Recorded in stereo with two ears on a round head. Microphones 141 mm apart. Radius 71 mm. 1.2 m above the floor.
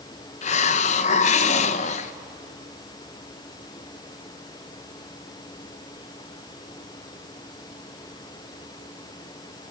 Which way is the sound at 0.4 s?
45° left (ahead or behind).